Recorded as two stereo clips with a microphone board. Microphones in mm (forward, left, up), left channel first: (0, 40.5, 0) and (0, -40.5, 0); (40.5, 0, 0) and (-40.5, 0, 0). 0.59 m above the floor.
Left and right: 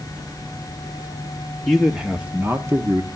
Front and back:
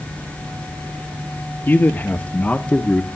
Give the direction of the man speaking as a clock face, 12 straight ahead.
12 o'clock.